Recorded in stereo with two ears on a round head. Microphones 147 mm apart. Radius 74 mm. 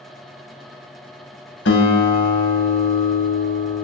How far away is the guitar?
About 0.8 m.